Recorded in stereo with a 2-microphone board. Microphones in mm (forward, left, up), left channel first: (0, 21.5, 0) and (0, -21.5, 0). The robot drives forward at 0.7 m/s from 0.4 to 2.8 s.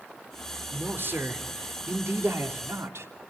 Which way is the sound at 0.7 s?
50° right (ahead or behind).